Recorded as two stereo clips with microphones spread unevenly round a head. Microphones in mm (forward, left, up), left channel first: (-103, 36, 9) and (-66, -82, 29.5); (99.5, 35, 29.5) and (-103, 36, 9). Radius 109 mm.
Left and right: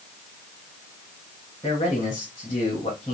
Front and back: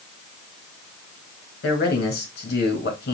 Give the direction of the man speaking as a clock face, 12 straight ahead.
11 o'clock.